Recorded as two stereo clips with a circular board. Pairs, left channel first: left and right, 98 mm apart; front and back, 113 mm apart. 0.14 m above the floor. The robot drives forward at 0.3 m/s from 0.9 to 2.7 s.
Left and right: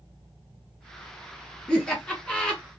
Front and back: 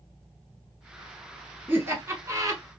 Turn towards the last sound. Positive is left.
turn(degrees=165)